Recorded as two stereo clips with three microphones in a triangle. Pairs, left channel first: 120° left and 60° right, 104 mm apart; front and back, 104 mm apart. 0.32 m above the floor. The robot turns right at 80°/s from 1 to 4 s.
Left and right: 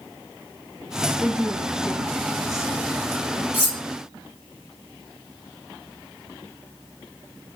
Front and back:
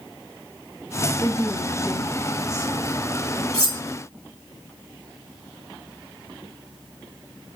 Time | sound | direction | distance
1.2 | a woman speaking | 50° left | 1.9 m
3.5 | cutlery clinking | 175° right | 1.7 m